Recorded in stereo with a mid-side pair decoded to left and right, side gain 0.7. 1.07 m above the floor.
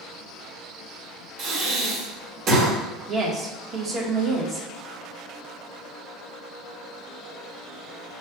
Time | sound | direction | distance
1.4 | breathing | 55° right | 2.0 m
3.1 | a woman speaking | 30° right | 1.4 m